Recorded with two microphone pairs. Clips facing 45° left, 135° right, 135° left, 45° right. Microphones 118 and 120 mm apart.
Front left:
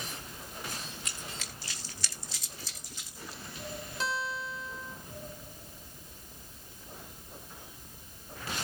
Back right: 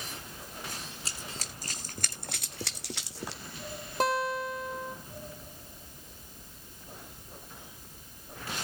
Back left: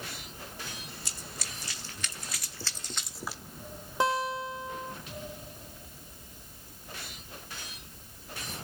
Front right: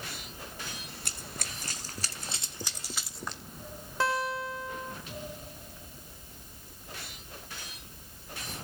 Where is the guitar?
155° right, 2.5 m.